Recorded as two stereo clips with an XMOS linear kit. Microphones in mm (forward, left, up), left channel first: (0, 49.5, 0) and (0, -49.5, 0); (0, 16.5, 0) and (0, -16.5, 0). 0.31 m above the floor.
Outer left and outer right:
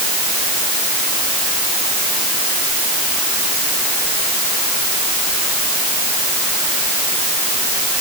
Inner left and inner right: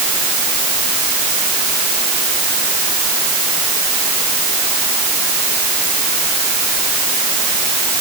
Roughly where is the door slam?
I don't hear a door slam.